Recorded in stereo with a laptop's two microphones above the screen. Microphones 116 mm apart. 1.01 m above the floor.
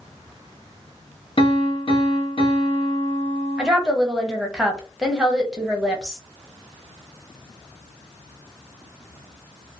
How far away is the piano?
About 0.7 m.